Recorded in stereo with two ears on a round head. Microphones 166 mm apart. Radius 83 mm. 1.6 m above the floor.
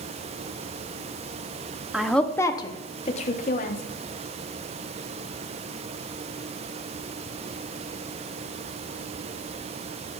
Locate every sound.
1.9 s a woman speaking: 5° right (ahead or behind), 0.8 m; by 3.8 s 50° left (ahead or behind), 1.5 m